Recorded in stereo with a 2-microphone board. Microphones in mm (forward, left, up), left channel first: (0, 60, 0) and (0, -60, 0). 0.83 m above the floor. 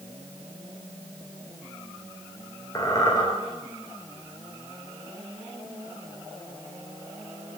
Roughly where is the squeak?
Left.